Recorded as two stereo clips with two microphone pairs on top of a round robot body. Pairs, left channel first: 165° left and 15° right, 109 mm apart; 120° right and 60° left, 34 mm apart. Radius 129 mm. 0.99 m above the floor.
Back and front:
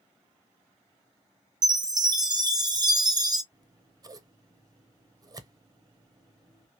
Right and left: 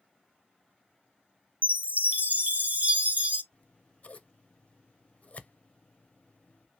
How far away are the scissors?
About 0.6 m.